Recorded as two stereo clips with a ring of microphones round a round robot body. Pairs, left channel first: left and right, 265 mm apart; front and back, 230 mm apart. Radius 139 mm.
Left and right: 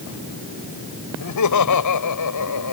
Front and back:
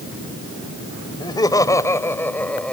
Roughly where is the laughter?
Left.